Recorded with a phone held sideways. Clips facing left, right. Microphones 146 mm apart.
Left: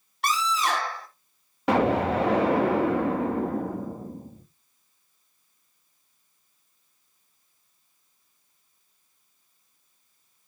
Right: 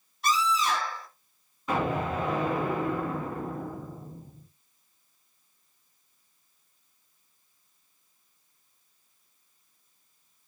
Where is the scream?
70° left (ahead or behind), 3.5 m.